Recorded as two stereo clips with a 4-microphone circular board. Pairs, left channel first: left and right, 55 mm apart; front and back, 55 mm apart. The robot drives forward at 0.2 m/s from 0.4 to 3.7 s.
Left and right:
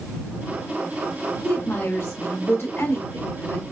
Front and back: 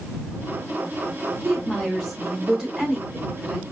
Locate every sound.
1.4 s a woman speaking: 95° left, 1.7 m; by 3.6 s 115° left, 1.7 m